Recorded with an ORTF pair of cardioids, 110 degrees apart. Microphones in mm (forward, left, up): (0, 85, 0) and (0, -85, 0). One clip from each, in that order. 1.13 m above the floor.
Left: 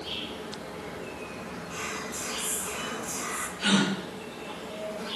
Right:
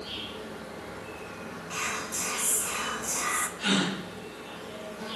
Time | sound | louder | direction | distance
0.0 | an insect | left 2 dB | 25° left | 6 m
1.7 | whispering | right 4 dB | 30° right | 1.3 m
3.6 | a gasp | left 4 dB | 10° left | 7 m